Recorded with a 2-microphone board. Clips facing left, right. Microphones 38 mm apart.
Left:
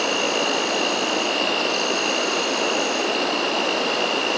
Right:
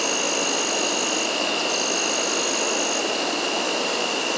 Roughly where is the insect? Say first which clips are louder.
Left 3 dB; centre.